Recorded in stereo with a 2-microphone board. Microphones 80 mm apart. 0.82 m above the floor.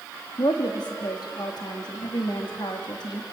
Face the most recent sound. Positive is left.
turn(degrees=65)  # may be behind; listen again after turning